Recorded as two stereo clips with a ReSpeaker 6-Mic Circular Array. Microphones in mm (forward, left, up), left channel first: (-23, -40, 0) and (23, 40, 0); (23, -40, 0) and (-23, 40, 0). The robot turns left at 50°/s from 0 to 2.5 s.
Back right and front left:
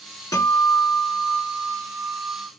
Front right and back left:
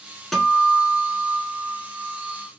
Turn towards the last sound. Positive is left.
turn(degrees=105)